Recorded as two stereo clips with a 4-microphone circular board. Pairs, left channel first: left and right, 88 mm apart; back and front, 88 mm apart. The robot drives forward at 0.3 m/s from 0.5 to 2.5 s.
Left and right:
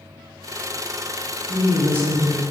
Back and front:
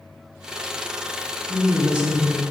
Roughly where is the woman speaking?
Ahead right.